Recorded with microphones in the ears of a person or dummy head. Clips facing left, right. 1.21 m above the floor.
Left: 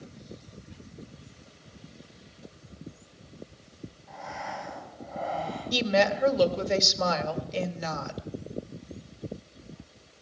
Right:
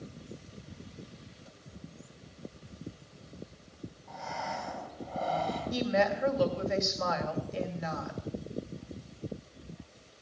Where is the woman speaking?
45° left (ahead or behind), 1.7 m.